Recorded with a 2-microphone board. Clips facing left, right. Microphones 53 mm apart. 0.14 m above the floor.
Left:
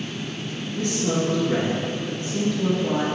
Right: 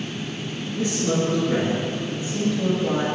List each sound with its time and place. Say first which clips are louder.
0.8 s a man speaking: right 1 dB; 5° right (ahead or behind), 1.9 m